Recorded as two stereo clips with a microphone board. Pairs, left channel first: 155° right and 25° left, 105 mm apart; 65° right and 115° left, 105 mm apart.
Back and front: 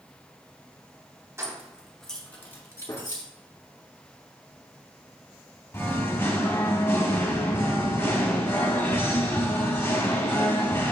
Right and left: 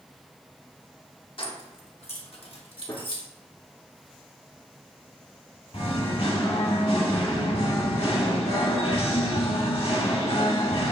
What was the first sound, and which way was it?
Keys jangling, 40° right.